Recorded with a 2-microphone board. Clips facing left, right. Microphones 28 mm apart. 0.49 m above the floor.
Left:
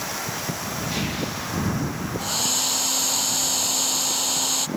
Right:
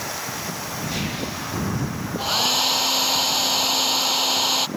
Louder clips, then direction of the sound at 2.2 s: Right 6 dB; 25° right (ahead or behind).